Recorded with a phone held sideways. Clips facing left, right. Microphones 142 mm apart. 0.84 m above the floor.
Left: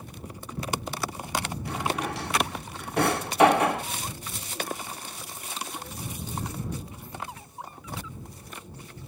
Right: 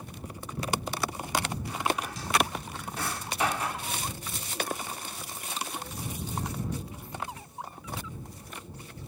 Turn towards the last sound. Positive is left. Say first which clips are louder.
# left 3 dB
turn(degrees=65)  # may be behind; listen again after turning